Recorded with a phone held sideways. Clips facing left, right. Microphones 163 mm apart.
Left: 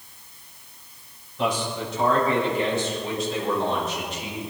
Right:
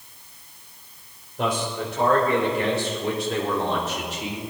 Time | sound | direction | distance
1.4 | a man speaking | 55° right (ahead or behind) | 5 m